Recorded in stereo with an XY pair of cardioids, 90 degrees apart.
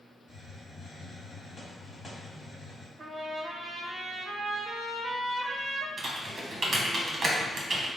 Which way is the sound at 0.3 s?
25° left.